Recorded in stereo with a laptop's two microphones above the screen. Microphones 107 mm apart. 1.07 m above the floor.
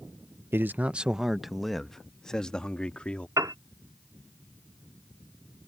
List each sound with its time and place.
0.5 s a man speaking: 20° right (ahead or behind); by 3.3 s 10° left (ahead or behind)
3.4 s a piano: 30° right (ahead or behind)